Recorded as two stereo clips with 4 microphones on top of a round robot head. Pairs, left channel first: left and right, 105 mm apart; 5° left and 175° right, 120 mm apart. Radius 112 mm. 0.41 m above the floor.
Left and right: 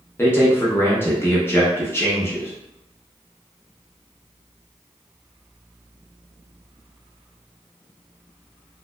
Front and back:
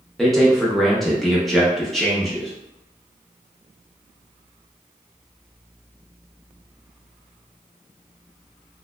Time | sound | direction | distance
0.2 | a man speaking | 90° left | 0.8 m